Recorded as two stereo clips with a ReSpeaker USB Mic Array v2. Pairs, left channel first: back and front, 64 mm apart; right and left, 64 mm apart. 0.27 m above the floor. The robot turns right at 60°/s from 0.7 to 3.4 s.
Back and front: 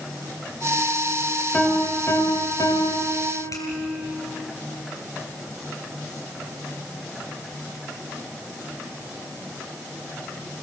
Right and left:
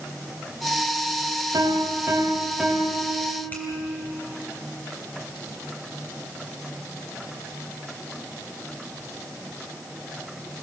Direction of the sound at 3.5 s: 150° right.